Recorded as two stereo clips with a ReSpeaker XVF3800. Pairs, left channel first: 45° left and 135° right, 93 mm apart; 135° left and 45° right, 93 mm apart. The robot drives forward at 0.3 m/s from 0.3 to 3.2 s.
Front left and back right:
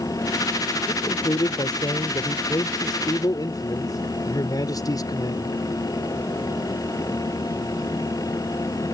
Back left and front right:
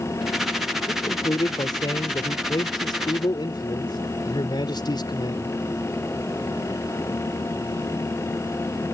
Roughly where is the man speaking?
Left.